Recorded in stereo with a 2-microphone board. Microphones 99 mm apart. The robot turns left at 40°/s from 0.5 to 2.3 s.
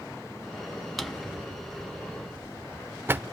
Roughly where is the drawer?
Centre.